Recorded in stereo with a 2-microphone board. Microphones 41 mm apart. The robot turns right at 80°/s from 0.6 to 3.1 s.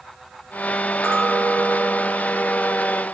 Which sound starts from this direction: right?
A clink, at 1.0 s.